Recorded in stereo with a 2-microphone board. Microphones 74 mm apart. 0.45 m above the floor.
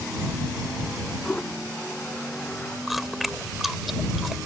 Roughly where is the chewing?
Centre.